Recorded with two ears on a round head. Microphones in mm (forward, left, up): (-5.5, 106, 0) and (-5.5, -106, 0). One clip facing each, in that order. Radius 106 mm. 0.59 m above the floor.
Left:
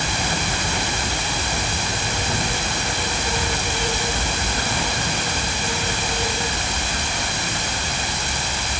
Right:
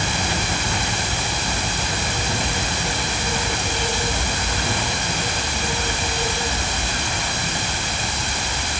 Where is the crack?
No crack in this recording.